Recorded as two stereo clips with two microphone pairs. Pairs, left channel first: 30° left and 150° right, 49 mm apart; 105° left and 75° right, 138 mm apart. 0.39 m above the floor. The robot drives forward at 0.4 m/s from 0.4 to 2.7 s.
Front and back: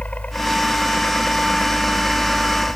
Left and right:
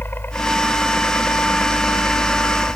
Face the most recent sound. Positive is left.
turn(degrees=45)